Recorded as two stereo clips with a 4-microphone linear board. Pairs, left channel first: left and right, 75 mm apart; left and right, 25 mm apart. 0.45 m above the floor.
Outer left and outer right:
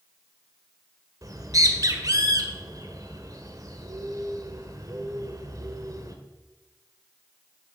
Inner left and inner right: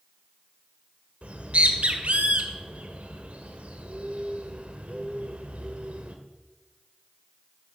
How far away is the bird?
About 1.4 m.